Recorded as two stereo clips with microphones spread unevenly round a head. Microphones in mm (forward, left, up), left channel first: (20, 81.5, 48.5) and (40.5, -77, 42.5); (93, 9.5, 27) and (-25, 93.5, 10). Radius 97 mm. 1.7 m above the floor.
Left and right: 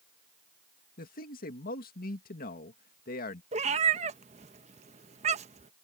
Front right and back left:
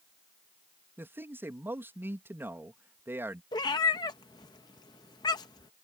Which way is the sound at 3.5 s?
65° right.